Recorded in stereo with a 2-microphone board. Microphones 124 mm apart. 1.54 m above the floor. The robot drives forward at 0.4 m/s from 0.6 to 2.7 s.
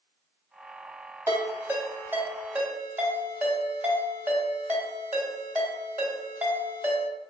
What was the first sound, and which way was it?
A ringtone, 20° right (ahead or behind).